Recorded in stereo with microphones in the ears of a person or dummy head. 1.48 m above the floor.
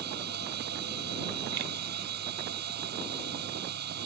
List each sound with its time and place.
0.0 s a machine running: 60° right (ahead or behind)